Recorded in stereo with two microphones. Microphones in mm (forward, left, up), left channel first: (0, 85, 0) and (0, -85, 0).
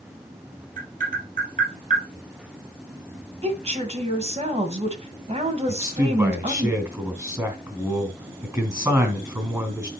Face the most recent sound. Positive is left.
turn(degrees=-20)  # may be behind; listen again after turning